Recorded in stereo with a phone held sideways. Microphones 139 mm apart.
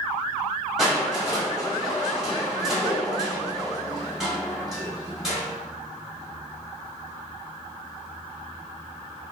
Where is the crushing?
5° right (ahead or behind), 1.0 m.